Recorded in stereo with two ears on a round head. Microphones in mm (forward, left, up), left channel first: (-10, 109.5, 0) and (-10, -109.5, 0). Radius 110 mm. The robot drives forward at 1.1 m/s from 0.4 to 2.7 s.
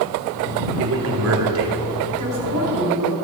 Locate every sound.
0.8 s a man speaking: 55° right (ahead or behind), 2.0 m
2.2 s a woman speaking: 80° right, 4.5 m; by 3.1 s 75° right (ahead or behind), 4.5 m